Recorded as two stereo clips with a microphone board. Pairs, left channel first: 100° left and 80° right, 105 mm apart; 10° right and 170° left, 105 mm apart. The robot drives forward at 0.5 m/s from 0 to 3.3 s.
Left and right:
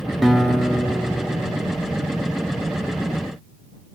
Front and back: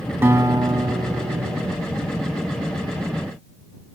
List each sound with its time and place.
0.2 s a guitar: 165° right, 0.6 m; by 1.8 s 175° right, 1.1 m